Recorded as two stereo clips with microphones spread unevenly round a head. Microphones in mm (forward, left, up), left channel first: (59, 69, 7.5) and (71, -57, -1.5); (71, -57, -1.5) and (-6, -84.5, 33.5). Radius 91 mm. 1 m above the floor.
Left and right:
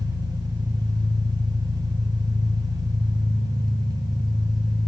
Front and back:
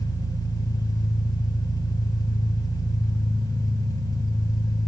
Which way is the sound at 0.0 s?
25° right.